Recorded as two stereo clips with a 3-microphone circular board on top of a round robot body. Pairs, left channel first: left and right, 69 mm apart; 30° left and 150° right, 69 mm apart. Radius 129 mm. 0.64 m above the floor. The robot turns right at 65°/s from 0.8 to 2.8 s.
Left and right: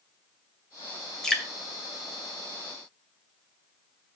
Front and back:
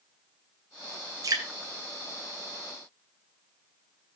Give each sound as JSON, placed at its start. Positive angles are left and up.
{"t": 1.2, "sound": "dripping", "azimuth_deg": 170, "distance_m": 2.0}